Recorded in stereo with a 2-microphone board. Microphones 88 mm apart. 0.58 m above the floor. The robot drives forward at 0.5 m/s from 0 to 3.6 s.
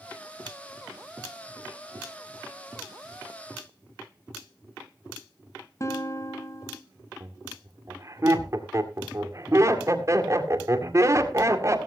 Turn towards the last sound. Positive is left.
turn(degrees=-35)  # may be behind; listen again after turning